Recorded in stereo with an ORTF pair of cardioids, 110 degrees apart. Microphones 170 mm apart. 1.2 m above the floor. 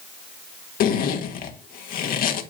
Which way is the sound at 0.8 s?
65° left.